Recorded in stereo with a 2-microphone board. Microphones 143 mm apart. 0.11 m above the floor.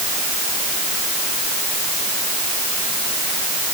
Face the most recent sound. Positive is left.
No sound to turn to.